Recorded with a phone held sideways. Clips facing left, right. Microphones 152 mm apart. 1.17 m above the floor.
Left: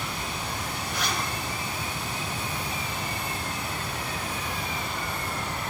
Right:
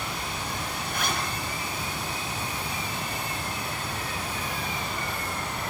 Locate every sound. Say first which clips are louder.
0.8 s a zipper: right 1 dB; 50° right (ahead or behind), 6.5 m